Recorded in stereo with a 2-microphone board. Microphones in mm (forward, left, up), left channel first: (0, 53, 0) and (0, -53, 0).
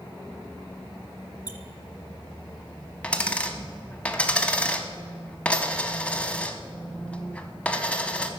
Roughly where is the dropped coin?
Centre.